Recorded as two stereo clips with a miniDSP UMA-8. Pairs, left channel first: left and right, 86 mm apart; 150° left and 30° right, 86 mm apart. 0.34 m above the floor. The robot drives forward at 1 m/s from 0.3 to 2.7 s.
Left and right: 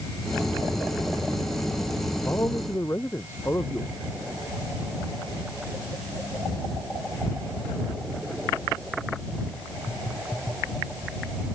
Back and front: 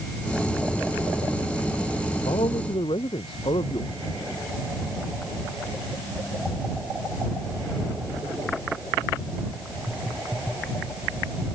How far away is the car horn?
I don't hear a car horn.